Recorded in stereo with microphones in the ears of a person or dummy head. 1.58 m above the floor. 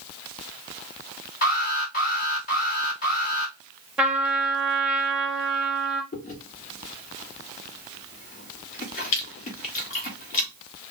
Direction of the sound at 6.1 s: 50° left (ahead or behind).